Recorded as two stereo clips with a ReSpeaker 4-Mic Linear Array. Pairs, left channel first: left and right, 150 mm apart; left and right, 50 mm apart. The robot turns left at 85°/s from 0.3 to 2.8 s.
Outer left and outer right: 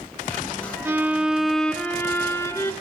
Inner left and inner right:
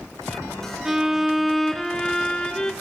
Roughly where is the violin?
Centre.